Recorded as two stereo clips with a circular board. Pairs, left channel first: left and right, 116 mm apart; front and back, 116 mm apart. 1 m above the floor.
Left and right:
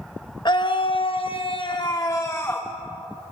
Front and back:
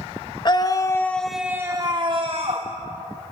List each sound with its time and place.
0.5 s a scream: 45° left, 1.3 m; by 2.7 s 160° left, 1.5 m